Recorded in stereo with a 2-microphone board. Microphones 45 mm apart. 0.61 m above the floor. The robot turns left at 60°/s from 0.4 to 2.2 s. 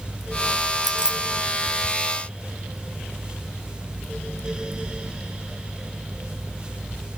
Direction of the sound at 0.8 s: 10° right (ahead or behind).